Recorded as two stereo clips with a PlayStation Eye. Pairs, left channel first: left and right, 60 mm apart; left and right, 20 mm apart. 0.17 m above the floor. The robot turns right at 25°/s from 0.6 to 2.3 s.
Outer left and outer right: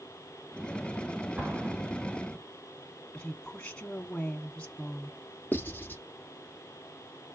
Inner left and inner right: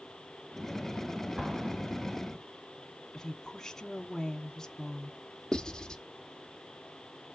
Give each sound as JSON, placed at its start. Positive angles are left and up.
{"t": 1.4, "sound": "an explosion", "side_deg": -30, "distance_m": 4.5}
{"t": 3.1, "sound": "a woman speaking", "side_deg": 15, "distance_m": 1.2}
{"t": 5.5, "sound": "writing", "side_deg": 30, "distance_m": 1.7}